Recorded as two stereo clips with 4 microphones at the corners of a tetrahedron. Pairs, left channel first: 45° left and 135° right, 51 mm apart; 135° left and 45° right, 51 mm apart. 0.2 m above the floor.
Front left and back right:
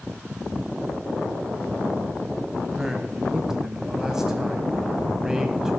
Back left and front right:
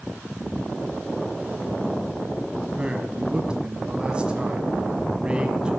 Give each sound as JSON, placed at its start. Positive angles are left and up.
{"t": 2.8, "sound": "a man speaking", "azimuth_deg": -70, "distance_m": 1.0}